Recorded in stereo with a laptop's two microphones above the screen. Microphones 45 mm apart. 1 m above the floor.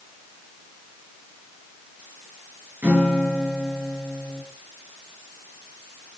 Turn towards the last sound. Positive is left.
turn(degrees=-35)  # may be behind; listen again after turning